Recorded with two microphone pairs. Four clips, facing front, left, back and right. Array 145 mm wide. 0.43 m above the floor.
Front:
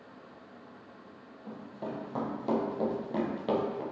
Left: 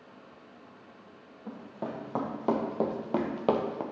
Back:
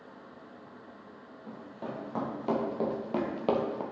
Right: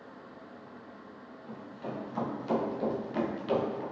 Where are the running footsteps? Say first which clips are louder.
Left 3 dB, front 1 dB; 90° left, 4 m; by 3.8 s 125° left, 2.0 m.